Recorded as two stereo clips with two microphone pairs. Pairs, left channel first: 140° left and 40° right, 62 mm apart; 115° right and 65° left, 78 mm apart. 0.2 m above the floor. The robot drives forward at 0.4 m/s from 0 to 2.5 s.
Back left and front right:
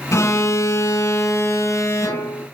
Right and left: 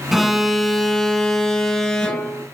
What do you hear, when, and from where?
0.1 s an alarm: 150° left, 1.1 m; by 2.5 s 165° left, 1.9 m